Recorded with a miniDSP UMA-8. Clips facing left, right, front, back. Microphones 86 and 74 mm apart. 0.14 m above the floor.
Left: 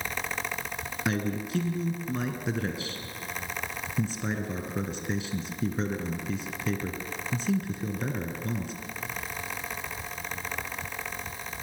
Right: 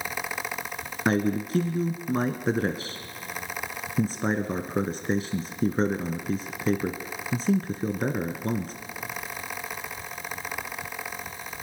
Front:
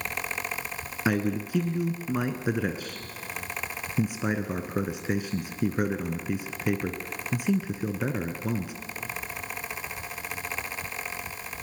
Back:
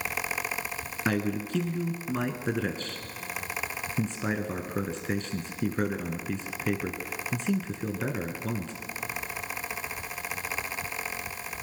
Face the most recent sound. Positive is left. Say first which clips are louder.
# right 6 dB, front 2 dB
turn(degrees=-75)